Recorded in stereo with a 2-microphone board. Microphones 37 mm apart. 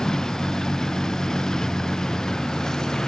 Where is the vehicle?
15° left (ahead or behind).